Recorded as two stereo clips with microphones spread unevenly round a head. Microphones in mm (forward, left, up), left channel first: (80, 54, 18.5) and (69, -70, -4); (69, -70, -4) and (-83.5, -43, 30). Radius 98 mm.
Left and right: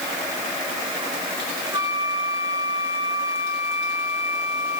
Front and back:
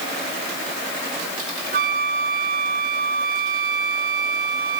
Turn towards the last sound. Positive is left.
turn(degrees=-175)